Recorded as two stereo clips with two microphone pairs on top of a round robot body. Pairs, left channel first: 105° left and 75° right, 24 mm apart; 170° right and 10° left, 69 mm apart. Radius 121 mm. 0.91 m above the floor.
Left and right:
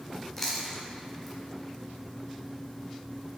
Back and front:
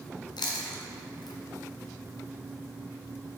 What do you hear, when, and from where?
0.4 s chewing: 165° right, 0.5 m